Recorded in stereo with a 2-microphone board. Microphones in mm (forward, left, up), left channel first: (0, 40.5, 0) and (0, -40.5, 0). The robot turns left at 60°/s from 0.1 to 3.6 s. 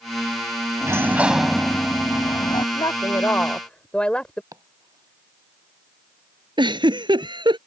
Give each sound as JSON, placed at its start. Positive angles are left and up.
{"t": 0.8, "sound": "a sliding door", "azimuth_deg": -140}
{"t": 2.8, "sound": "a woman speaking", "azimuth_deg": 65}
{"t": 4.5, "sound": "chopping", "side_deg": -45}
{"t": 6.6, "sound": "a giggle", "side_deg": -70}